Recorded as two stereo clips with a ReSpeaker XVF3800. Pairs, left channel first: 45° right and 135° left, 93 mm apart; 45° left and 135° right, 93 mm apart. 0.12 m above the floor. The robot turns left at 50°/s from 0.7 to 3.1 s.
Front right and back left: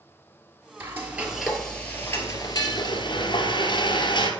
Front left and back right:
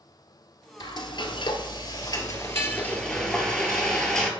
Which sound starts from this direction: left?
Frying, at 0.8 s.